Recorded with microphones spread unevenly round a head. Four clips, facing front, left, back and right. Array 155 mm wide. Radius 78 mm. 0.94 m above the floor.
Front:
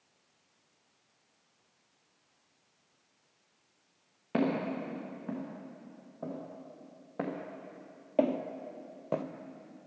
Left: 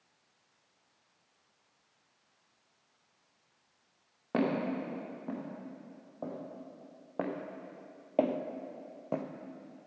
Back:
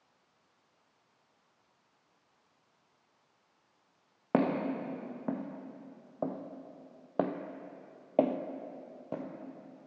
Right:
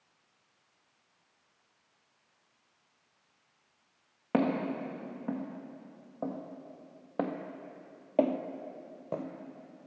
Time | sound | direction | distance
4.3 | footsteps | 170° right | 3 m